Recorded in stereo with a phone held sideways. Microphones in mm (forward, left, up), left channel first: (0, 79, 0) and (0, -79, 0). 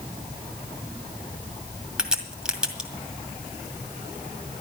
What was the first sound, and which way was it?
A crack, 5° right (ahead or behind).